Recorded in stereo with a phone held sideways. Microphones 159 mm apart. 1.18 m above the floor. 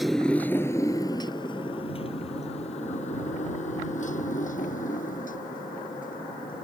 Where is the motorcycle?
Centre (ahead or behind); by 6.7 s 60° left (ahead or behind).